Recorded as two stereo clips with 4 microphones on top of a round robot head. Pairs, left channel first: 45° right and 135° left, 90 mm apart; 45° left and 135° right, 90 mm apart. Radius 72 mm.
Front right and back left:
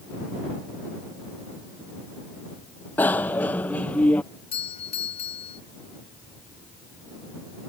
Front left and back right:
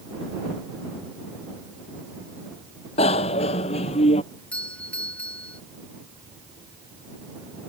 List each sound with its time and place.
3.0 s a bicycle bell: 30° left; by 4.2 s 35° left
4.5 s a doorbell: 35° right